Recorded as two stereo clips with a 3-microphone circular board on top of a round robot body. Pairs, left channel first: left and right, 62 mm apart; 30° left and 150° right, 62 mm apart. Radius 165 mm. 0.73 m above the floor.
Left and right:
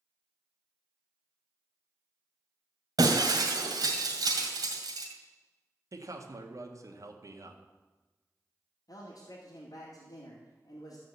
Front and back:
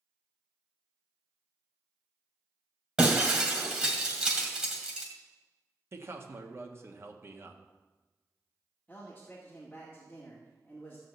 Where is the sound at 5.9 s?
110° right, 1.9 m.